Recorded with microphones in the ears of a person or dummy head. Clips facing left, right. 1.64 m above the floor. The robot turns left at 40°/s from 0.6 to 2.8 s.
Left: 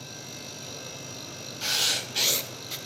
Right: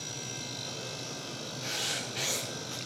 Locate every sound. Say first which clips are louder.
1.6 s writing: left 5 dB; 80° left, 0.5 m; by 2.8 s 35° left, 0.5 m